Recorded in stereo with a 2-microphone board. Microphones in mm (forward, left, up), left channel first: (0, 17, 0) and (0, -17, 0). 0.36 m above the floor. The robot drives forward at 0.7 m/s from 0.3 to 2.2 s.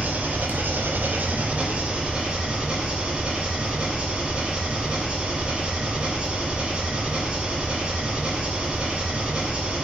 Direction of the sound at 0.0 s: 50° right (ahead or behind).